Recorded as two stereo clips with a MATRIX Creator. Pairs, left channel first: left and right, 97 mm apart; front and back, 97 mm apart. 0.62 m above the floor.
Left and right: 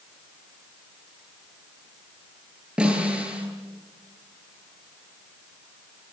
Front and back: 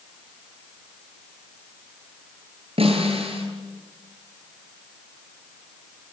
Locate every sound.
2.8 s a snare drum: 170° right, 9.5 m